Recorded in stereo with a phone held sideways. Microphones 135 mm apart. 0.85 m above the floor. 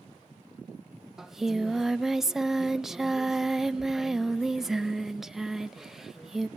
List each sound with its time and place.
1.2 s singing: 5° right (ahead or behind), 0.5 m